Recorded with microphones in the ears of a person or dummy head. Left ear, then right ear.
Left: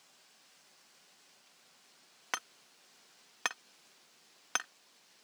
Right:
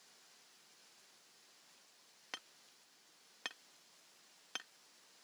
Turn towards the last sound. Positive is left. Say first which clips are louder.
# left 11 dB
turn(degrees=50)  # may be behind; listen again after turning